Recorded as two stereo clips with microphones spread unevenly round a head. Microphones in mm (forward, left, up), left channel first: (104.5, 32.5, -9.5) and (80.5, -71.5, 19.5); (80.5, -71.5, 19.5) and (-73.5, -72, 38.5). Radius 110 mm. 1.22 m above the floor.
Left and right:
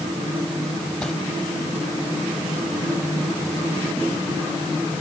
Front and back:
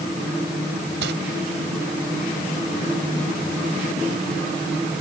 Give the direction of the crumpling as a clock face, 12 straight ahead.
6 o'clock.